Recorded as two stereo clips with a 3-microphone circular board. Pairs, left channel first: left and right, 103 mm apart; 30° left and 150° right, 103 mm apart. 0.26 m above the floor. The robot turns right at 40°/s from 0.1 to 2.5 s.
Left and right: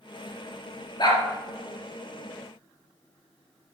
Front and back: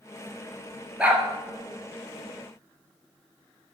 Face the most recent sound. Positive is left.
turn(degrees=-170)